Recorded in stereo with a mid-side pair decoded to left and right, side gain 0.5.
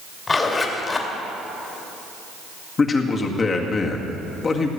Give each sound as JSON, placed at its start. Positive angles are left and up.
{"t": 0.3, "sound": "a zipper", "azimuth_deg": 30, "distance_m": 2.5}
{"t": 2.8, "sound": "a man speaking", "azimuth_deg": 35, "distance_m": 2.0}